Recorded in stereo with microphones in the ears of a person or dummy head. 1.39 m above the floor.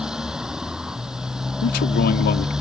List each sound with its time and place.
0.0 s a motorcycle: 5° right (ahead or behind)
1.6 s a man speaking: 60° left (ahead or behind)